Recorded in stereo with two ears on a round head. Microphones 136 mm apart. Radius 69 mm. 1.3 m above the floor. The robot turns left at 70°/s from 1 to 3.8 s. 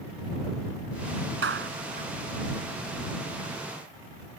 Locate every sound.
1.4 s a clap: 85° right; by 2.1 s 45° right (ahead or behind)